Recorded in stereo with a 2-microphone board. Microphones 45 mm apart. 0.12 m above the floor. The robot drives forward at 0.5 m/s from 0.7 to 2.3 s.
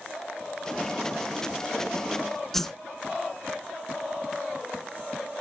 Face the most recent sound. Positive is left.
turn(degrees=5)  # may be behind; listen again after turning